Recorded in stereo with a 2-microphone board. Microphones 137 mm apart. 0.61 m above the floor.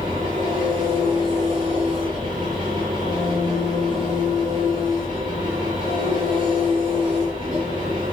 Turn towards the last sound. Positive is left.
turn(degrees=-40)  # may be behind; listen again after turning